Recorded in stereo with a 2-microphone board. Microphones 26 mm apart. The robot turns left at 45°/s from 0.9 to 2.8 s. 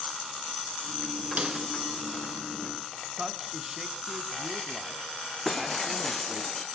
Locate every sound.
1.4 s a snare drum: 55° right (ahead or behind), 3 m; by 1.6 s 45° right (ahead or behind), 3 m
3.1 s a man speaking: 25° right (ahead or behind), 2 m
5.5 s breaking glass: 5° left (ahead or behind), 3 m